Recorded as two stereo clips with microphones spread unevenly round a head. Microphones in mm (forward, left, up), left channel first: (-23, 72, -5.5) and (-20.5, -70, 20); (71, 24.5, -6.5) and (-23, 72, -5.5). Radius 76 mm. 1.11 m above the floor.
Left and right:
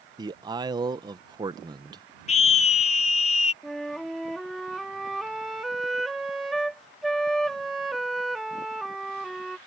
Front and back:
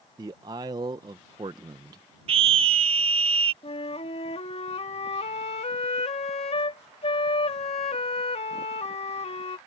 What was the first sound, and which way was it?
A man speaking, 155° right.